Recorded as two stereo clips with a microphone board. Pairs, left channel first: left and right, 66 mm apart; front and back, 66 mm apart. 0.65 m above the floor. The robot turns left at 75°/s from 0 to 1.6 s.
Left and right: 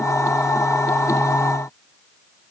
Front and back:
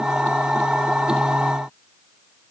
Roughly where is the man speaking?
No man speaking in this recording.